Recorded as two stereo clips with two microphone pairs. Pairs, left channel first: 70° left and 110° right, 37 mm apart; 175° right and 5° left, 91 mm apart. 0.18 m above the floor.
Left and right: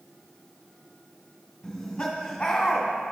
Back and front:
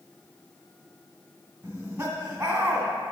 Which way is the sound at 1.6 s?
40° left.